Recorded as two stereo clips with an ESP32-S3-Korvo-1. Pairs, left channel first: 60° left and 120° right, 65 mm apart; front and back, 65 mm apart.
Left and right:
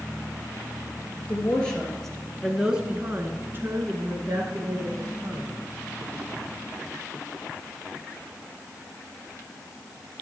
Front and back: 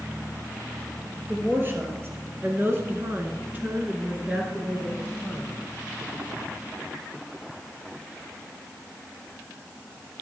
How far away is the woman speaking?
About 2 m.